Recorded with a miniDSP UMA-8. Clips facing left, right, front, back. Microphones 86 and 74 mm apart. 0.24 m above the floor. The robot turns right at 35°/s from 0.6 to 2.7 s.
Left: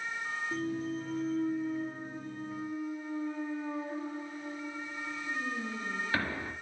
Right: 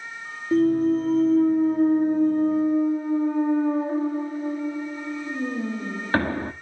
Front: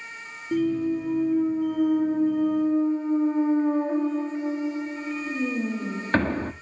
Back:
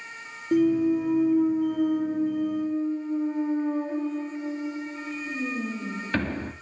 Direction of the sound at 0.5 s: 120° right.